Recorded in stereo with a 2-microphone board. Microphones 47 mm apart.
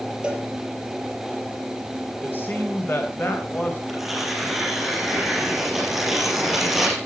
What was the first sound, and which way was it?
A cowbell, 15° right (ahead or behind).